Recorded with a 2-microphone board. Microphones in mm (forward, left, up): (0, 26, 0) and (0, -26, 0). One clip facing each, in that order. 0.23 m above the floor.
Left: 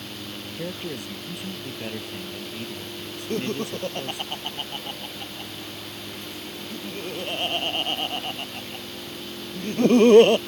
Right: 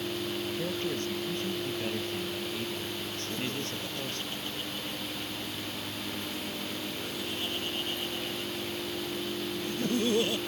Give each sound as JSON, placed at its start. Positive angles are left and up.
{"t": 0.6, "sound": "a man speaking", "side_deg": 15}
{"t": 3.3, "sound": "laughter", "side_deg": 60}